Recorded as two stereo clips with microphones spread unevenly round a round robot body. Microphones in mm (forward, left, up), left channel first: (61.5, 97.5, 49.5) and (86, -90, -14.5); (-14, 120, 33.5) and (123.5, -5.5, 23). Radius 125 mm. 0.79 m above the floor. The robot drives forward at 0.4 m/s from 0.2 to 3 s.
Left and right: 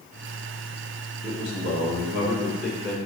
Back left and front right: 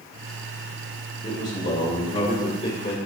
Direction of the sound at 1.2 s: 160° right.